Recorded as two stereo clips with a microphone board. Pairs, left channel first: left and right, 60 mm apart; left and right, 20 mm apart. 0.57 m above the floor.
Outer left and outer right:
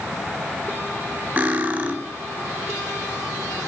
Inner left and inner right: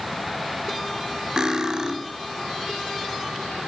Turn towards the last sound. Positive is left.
turn(degrees=-25)  # may be behind; listen again after turning